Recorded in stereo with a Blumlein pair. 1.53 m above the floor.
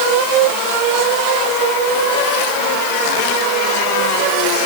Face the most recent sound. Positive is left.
No sound to turn to.